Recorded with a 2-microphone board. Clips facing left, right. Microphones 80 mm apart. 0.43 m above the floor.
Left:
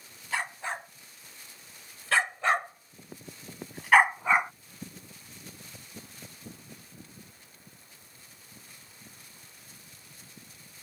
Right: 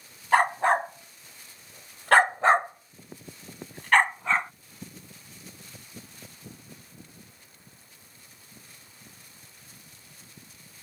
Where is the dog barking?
60° right (ahead or behind); by 4.5 s 15° left (ahead or behind).